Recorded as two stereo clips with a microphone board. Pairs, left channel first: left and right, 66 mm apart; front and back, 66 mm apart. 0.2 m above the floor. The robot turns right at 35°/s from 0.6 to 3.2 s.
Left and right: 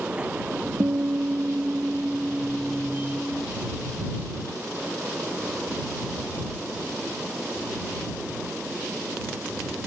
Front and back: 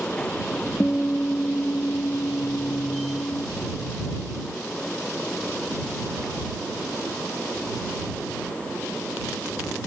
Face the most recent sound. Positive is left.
turn(degrees=15)